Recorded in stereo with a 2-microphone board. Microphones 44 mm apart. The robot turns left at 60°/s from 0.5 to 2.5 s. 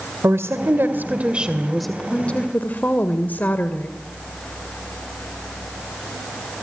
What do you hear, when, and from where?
0.2 s a woman speaking: 105° right, 1.9 m; by 3.9 s 135° left, 1.9 m